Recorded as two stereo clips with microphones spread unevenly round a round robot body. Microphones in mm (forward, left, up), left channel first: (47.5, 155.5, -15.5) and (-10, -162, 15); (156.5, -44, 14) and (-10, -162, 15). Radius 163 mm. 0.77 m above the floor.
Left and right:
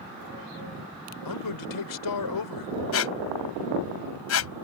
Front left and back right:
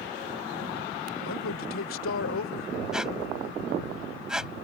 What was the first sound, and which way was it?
A man speaking, 60° left.